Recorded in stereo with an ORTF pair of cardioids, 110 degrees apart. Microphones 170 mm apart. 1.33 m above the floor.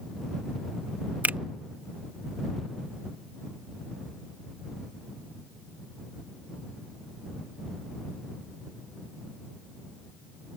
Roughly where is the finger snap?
Ahead.